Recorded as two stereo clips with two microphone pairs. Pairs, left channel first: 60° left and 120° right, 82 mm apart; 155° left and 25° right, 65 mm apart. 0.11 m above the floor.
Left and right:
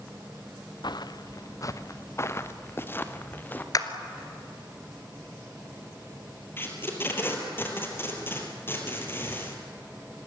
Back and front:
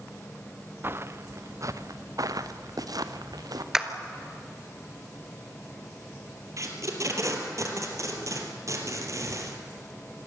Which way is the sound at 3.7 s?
55° left.